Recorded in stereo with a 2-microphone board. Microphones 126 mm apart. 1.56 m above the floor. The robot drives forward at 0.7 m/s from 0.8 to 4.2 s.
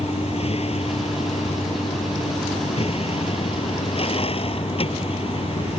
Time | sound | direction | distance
0.0 | a vehicle | 55° left (ahead or behind) | ?